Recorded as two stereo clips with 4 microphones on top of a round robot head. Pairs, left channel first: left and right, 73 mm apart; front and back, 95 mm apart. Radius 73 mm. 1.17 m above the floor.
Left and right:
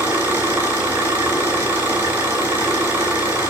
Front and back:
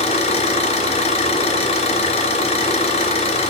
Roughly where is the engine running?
Ahead right.